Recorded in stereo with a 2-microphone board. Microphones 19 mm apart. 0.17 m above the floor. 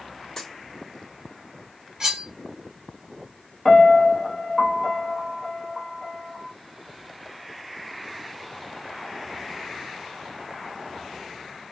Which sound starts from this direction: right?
Cutlery clinking, at 2.0 s.